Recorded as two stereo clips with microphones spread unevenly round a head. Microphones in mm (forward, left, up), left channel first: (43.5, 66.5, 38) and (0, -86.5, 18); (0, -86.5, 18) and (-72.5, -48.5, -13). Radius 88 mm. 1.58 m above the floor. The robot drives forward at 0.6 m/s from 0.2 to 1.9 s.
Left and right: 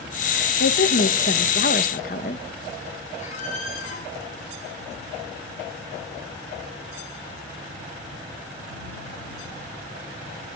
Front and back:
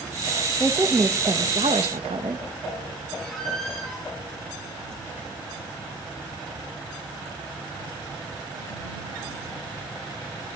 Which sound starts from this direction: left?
A woman speaking, at 0.6 s.